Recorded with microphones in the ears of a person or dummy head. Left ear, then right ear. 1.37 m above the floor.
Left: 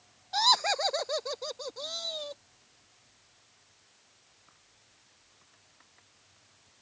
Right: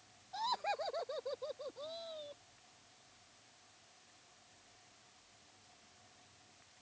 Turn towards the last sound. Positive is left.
turn(degrees=75)  # may be behind; listen again after turning